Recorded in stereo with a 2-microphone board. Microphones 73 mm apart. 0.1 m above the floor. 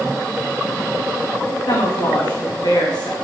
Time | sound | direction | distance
1.7 | a woman speaking | 70° left (ahead or behind) | 6.5 m